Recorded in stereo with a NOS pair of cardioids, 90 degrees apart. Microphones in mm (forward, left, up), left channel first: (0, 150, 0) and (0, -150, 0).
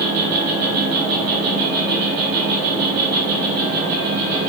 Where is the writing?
I don't hear writing.